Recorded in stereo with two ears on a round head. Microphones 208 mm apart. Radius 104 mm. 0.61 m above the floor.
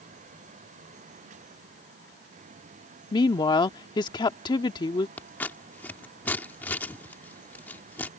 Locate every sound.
3.1 s a woman speaking: 20° left (ahead or behind)
5.2 s scissors: 10° left (ahead or behind)